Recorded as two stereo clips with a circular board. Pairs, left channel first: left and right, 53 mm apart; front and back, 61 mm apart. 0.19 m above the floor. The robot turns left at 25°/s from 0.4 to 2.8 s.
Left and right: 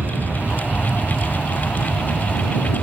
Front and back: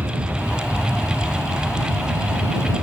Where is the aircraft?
135° right; by 2.8 s 165° left.